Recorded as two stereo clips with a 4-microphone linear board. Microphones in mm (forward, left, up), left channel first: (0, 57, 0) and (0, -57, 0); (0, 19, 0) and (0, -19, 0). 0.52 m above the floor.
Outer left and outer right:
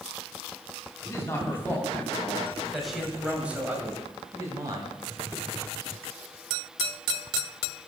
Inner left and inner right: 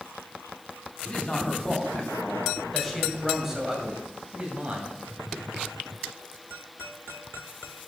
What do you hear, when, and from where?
1.1 s a man speaking: 25° left (ahead or behind), 3 m; by 5.0 s 40° right (ahead or behind), 2.5 m